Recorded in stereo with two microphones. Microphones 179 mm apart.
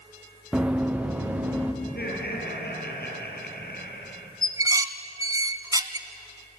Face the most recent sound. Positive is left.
turn(degrees=-20)  # may be behind; listen again after turning